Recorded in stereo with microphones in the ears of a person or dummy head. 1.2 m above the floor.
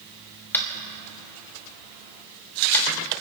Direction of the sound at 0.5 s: 15° left (ahead or behind).